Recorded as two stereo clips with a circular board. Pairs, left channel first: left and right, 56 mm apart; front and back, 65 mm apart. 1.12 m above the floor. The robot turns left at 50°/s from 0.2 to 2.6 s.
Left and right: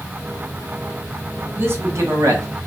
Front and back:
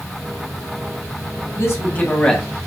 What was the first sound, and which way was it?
A man speaking, 40° right.